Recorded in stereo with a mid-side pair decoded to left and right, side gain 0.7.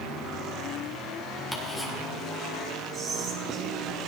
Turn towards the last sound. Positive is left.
turn(degrees=-30)